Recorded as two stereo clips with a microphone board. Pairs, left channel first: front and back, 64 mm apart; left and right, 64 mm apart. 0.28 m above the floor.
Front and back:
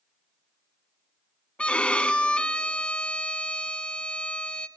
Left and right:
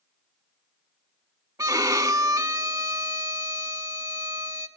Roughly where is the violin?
Right.